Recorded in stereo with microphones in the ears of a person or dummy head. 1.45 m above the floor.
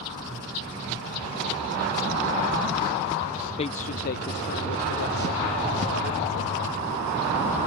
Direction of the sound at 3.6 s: 25° left (ahead or behind).